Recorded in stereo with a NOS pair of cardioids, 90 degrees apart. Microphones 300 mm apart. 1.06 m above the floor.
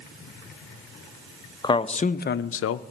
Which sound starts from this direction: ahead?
A man speaking, at 1.6 s.